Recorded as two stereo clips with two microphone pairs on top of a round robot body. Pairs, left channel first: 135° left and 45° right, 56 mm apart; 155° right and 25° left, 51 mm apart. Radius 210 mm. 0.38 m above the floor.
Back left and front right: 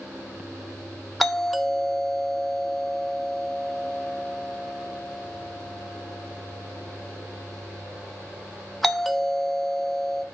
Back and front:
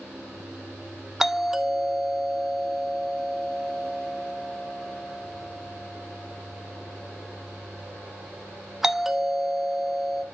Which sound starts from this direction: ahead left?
A doorbell, at 1.2 s.